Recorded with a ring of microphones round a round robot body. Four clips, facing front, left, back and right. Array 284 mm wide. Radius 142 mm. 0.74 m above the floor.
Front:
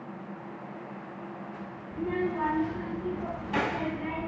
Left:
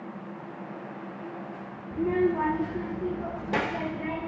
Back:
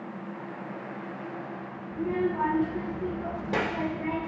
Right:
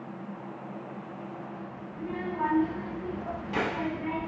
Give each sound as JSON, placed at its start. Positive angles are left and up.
{"t": 1.9, "sound": "a child speaking", "azimuth_deg": 90, "distance_m": 1.2}